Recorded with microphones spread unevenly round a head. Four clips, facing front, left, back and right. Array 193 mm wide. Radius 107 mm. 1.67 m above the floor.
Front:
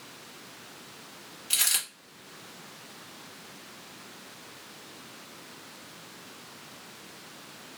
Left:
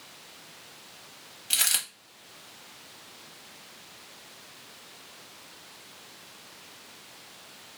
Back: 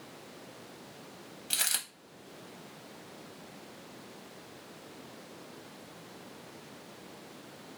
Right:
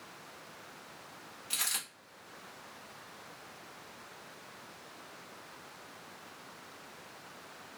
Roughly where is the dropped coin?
Left.